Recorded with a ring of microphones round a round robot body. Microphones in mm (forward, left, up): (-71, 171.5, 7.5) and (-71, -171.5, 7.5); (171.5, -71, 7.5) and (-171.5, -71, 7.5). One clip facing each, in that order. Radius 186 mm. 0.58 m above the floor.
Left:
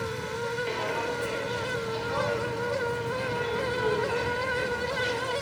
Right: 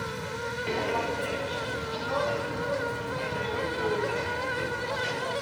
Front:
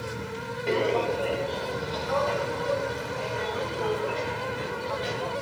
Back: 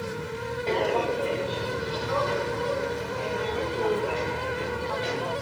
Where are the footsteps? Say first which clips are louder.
Right 1 dB, front 1 dB; 70° right, 0.8 m; by 5.3 s 125° right, 4 m.